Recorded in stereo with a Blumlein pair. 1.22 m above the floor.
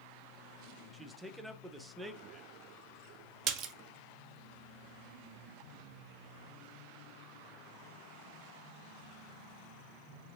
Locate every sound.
0.9 s a man speaking: 5° right, 0.5 m
3.5 s a splash: 30° right, 0.5 m